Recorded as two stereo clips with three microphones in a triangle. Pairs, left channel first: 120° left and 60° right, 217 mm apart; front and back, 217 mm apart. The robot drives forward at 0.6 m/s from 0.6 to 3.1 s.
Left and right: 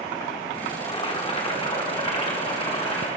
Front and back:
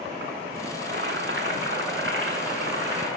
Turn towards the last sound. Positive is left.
turn(degrees=180)